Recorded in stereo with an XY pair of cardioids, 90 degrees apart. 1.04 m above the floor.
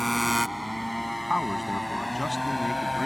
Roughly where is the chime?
No chime in this recording.